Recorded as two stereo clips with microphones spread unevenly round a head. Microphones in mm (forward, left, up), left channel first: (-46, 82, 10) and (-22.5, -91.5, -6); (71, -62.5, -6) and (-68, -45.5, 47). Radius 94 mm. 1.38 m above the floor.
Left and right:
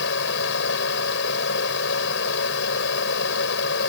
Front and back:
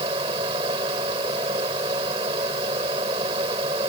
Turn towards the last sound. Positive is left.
turn(degrees=110)